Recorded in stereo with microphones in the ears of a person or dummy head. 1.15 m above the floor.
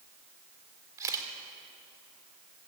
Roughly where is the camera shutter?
Centre.